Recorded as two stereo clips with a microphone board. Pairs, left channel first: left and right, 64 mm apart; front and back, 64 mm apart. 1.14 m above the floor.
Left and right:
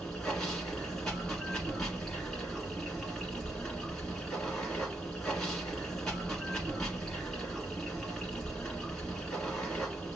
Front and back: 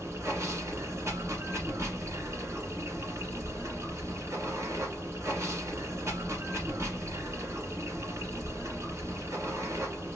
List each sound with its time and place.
0.0 s running water: 170° left, 1.4 m